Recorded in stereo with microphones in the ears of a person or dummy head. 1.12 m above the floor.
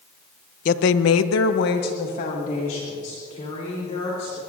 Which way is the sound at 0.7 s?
45° left (ahead or behind).